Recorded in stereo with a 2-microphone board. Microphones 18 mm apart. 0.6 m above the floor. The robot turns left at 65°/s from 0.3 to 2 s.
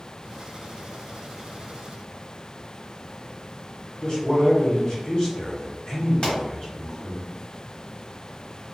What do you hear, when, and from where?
4.0 s a man speaking: 35° left (ahead or behind), 0.9 m
6.2 s a pop: 35° left (ahead or behind), 1.3 m